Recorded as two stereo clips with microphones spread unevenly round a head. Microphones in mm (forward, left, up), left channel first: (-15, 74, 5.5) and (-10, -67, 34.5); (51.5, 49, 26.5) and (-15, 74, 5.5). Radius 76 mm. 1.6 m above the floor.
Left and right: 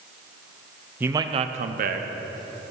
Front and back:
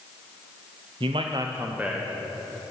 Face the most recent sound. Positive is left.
turn(degrees=-110)